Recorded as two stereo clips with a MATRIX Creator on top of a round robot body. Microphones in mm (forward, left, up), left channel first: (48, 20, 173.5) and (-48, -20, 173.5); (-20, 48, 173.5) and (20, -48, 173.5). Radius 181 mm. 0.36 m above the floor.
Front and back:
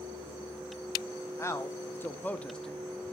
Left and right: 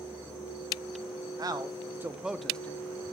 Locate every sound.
1.4 s a man speaking: 30° right, 1.3 m; by 2.8 s 110° left, 1.0 m